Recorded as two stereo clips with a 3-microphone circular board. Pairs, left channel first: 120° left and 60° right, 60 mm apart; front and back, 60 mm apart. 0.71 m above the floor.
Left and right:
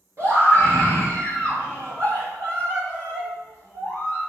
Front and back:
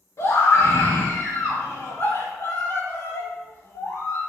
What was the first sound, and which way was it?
A scream, 25° right.